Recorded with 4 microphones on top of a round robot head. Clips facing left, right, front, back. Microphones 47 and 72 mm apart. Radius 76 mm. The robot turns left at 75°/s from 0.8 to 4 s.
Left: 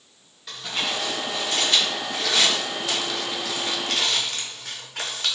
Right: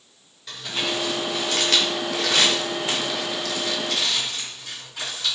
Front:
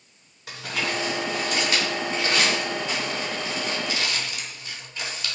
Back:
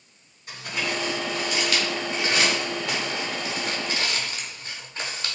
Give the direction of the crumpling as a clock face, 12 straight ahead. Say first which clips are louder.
Right 1 dB, front 1 dB; 12 o'clock.